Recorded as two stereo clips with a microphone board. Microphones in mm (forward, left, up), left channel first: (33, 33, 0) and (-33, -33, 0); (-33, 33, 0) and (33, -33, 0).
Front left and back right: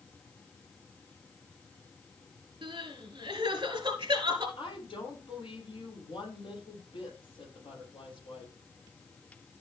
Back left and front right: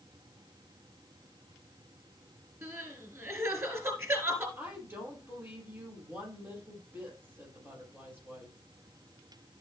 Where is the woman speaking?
20° left, 6 m.